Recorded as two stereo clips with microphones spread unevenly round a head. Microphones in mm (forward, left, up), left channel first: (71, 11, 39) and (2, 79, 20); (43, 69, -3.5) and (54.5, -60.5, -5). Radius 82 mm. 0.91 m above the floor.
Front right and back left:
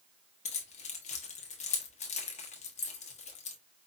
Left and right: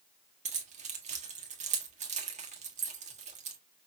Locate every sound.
0.5 s keys jangling: 50° right, 1.3 m